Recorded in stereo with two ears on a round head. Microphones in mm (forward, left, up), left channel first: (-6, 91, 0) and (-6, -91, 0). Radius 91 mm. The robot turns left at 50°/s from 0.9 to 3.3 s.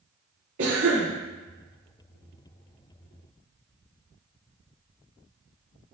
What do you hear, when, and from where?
0.6 s a cough: 70° right (ahead or behind), 1.5 m; by 1.1 s 80° right, 1.5 m